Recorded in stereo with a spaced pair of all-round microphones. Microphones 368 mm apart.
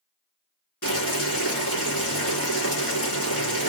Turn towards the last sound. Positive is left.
turn(degrees=70)  # may be behind; listen again after turning